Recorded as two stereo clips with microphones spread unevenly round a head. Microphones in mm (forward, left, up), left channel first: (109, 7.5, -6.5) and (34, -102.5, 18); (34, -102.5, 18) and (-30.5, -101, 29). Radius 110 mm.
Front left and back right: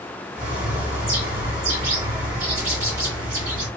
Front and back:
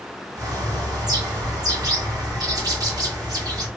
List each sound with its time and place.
0.3 s a bird: 175° right, 1.7 m